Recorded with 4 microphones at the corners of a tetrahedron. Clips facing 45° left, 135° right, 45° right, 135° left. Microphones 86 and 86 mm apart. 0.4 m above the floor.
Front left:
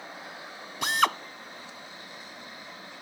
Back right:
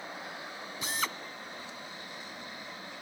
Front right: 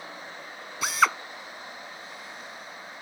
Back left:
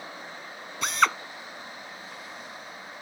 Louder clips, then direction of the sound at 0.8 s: Front left 11 dB, even; 45° left.